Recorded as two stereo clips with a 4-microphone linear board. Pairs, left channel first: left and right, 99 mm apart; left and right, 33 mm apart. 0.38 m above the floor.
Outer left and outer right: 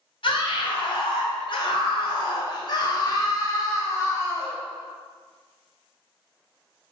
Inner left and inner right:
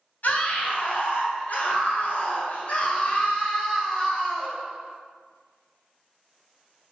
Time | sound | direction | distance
0.2 | a scream | 60° left (ahead or behind) | 3 m